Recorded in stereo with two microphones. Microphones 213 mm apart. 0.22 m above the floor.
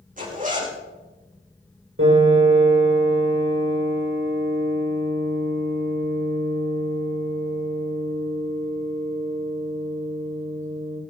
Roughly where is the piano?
Right.